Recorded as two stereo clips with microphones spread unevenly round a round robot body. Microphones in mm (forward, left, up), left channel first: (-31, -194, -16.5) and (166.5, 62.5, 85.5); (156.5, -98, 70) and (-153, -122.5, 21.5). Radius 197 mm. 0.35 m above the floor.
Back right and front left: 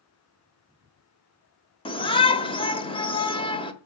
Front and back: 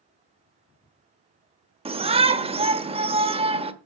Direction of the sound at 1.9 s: 140° right.